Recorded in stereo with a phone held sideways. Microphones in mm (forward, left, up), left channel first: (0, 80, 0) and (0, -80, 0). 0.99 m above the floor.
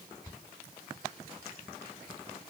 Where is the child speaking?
No child speaking in this recording.